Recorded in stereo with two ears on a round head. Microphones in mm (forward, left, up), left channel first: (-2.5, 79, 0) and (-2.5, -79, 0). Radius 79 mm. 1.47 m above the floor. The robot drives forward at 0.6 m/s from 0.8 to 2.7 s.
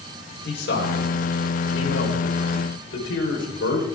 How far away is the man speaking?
About 6 m.